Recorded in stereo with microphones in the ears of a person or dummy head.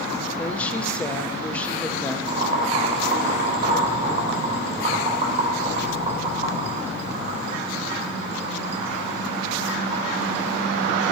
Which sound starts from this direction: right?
Boiling, at 2.3 s.